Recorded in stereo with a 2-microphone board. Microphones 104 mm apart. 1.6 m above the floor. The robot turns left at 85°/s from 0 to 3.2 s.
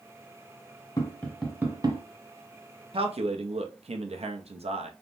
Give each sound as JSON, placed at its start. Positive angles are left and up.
{"t": 1.0, "sound": "tapping", "side_deg": 40, "distance_m": 0.8}
{"t": 2.9, "sound": "a man speaking", "side_deg": -60, "distance_m": 0.6}